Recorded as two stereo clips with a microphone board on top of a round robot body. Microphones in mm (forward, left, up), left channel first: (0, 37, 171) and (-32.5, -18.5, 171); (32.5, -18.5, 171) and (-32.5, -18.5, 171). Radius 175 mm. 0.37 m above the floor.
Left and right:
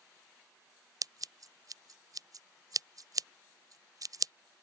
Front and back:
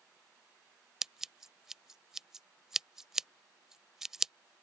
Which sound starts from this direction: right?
Scissors, at 1.0 s.